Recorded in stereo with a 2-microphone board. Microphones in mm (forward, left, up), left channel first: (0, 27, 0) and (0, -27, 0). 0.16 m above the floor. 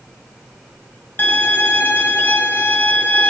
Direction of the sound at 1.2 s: 35° left (ahead or behind).